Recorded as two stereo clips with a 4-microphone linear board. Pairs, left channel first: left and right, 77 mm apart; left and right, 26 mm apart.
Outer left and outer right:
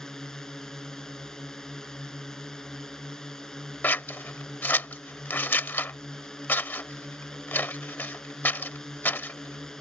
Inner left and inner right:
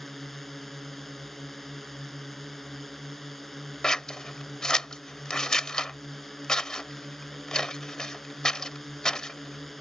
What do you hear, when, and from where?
0.0 s a drone: 10° left (ahead or behind)
3.8 s scissors: 25° left (ahead or behind)